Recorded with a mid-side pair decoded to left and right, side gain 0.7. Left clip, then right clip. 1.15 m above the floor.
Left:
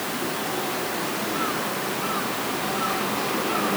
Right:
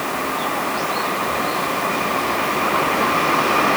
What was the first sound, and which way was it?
Only background noise.